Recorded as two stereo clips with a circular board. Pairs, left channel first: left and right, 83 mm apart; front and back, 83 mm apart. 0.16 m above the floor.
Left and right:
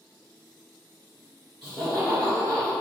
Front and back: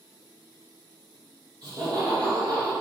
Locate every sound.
1.6 s laughter: 140° left, 1.6 m